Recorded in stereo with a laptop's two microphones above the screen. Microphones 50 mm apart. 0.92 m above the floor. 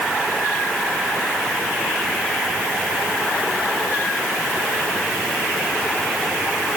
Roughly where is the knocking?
I don't hear knocking.